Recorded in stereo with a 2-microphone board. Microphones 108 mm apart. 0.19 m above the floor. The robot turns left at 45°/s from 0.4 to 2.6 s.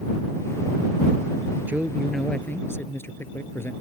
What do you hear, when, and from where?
1.7 s a man speaking: 160° right; by 3.7 s 155° left